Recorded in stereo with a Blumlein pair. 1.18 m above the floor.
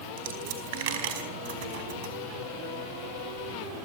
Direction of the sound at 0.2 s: 50° right.